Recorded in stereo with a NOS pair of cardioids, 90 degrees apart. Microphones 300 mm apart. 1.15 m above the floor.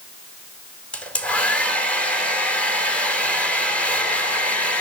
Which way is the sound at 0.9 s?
5° left.